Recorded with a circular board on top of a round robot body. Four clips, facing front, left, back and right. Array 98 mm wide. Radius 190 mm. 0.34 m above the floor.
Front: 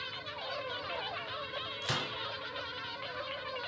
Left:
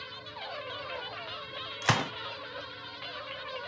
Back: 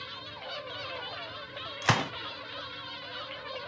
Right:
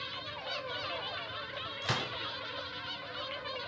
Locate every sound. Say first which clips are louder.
1.8 s a gunshot: left 8 dB, back 11 dB; 140° left, 0.9 m